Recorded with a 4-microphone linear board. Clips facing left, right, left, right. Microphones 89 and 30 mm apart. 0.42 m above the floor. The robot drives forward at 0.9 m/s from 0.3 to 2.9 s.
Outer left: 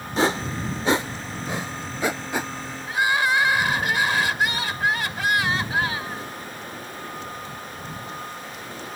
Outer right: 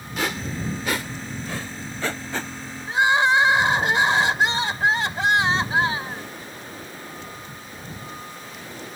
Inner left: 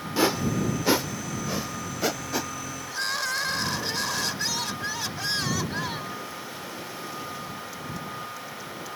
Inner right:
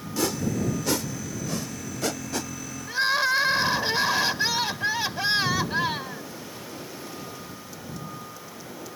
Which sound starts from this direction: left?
A whoosh, at 0.2 s.